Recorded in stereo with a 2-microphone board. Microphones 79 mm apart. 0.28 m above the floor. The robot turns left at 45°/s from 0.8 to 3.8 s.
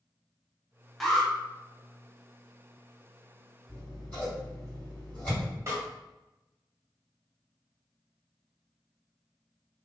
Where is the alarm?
Centre (ahead or behind), 0.6 m; by 1.3 s 5° left (ahead or behind), 0.6 m.